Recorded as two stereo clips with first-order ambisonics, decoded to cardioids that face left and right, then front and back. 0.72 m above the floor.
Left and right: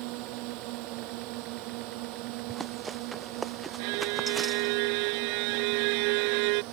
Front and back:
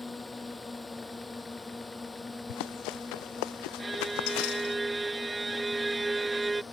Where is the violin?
100° right.